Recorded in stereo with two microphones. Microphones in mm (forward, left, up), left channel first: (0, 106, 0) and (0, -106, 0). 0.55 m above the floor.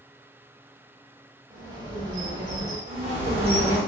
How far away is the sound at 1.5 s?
About 1.1 m.